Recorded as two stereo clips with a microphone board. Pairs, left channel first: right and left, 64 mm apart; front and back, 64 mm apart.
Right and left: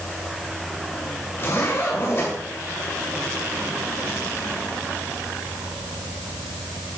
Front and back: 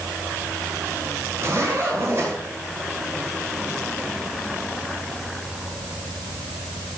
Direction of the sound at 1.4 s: 135° right.